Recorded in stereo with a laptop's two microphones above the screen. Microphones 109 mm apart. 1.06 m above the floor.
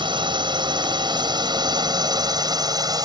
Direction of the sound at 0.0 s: 45° right (ahead or behind).